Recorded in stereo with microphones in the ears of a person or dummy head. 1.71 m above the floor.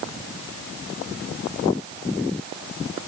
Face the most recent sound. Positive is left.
No sound to turn to.